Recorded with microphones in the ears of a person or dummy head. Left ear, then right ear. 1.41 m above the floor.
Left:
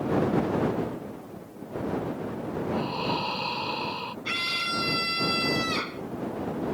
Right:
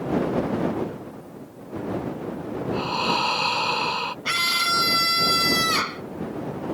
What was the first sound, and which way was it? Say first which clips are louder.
Breathing: right 7 dB; 40° right (ahead or behind).